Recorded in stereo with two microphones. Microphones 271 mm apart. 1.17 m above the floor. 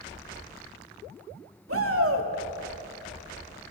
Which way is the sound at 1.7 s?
55° right (ahead or behind).